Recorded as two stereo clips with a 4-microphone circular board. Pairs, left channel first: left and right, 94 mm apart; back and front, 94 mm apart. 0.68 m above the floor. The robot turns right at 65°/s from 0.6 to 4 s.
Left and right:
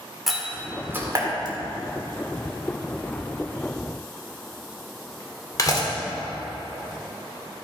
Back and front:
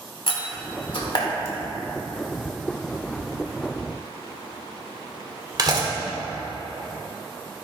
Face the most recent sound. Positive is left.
turn(degrees=40)